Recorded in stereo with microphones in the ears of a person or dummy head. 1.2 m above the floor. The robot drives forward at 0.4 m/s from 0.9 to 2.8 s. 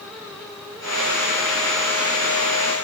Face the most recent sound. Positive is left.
No sound to turn to.